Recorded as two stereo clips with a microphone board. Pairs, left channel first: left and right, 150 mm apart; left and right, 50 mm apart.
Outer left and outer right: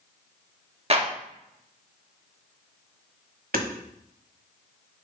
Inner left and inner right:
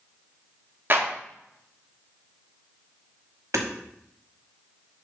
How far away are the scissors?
I don't hear scissors.